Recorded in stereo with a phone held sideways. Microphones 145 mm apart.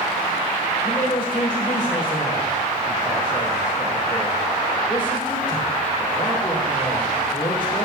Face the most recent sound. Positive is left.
turn(degrees=35)  # may be behind; listen again after turning